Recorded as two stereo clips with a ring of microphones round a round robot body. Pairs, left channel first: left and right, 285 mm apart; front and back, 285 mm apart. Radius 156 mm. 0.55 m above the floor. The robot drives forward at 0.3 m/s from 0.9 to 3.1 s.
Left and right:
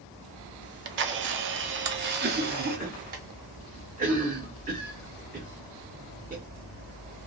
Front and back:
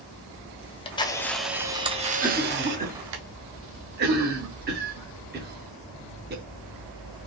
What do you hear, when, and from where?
0.6 s a camera shutter: 65° right, 0.5 m; by 3.2 s 150° right, 0.7 m
2.2 s a cough: 115° right, 0.7 m; by 6.4 s 140° right, 0.8 m